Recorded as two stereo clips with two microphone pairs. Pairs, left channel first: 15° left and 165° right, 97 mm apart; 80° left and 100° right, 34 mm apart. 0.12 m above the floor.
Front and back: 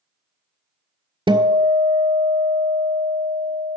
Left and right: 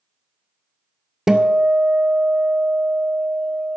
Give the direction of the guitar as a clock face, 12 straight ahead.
5 o'clock.